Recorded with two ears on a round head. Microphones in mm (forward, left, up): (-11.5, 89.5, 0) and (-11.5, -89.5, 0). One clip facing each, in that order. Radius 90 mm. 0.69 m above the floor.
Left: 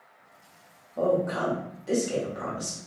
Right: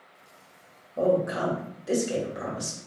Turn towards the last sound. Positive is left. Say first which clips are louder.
# right 1 dB
turn(degrees=-10)  # may be behind; listen again after turning